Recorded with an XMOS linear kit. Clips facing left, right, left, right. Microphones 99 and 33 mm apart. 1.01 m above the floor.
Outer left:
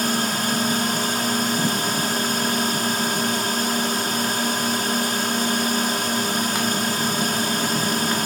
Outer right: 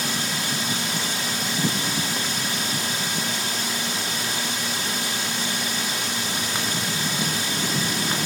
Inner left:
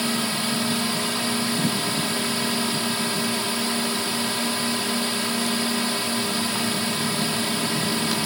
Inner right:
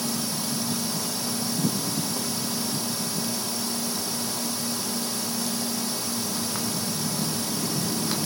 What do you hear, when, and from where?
0.0 s a drone: 50° left (ahead or behind)